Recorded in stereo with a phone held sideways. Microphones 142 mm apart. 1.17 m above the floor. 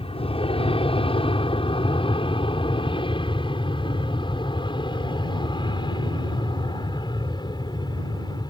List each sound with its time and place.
0.0 s an aircraft: 40° left (ahead or behind); by 8.5 s 30° left (ahead or behind)